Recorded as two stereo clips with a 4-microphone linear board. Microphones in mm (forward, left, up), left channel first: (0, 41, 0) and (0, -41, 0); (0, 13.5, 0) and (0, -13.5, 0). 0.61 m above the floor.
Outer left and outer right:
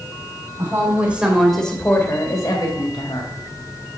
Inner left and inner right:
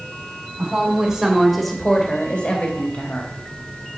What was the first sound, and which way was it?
A woman speaking, 30° right (ahead or behind).